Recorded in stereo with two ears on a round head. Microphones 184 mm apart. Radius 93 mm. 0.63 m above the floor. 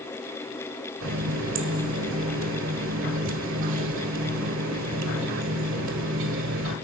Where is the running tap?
65° right (ahead or behind), 1.9 m.